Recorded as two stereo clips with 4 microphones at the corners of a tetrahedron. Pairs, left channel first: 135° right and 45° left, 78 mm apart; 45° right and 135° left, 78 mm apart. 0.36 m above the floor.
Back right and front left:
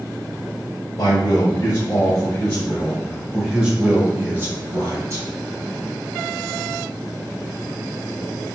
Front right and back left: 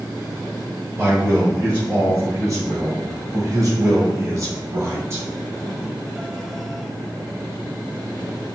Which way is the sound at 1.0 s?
170° right.